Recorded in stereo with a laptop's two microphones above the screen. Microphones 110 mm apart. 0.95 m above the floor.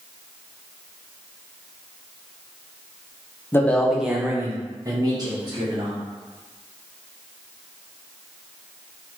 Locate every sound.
3.5 s a man speaking: 20° left (ahead or behind), 0.6 m; by 6.0 s 40° right (ahead or behind), 1.8 m